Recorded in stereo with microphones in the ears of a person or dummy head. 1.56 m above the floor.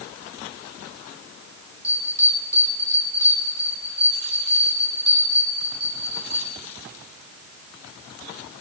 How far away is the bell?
About 4 m.